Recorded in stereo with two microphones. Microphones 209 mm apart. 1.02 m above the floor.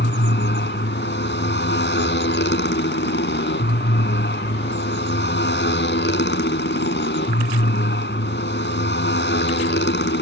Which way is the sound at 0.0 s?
60° left (ahead or behind).